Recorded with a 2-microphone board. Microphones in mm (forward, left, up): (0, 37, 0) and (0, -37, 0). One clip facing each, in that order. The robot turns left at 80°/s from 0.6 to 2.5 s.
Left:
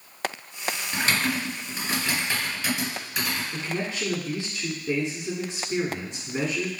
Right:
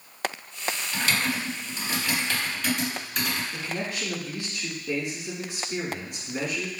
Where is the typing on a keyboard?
35° left (ahead or behind), 2.0 m; by 3.4 s 10° left (ahead or behind), 2.0 m.